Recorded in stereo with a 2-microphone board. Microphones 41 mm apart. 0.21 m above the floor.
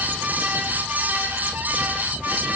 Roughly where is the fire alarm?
I don't hear a fire alarm.